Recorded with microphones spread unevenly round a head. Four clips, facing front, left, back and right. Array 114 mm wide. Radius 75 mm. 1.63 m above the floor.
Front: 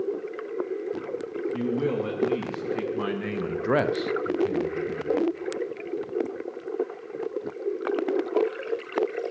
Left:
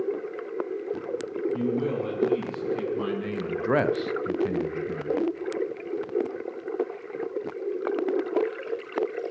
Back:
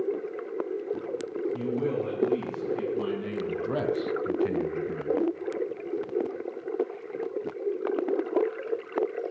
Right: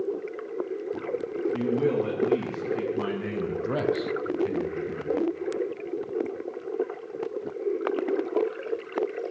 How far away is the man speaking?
About 3 m.